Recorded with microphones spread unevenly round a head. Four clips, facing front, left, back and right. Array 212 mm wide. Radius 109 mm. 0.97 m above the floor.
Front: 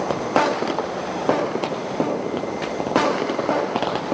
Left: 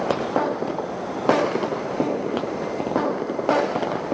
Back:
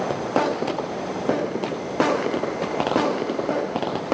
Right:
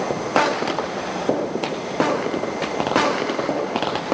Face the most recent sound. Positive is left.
No sound to turn to.